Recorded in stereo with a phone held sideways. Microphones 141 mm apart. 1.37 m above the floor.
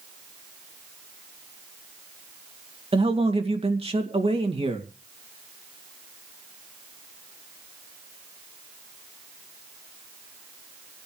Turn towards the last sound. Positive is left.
turn(degrees=-45)  # may be behind; listen again after turning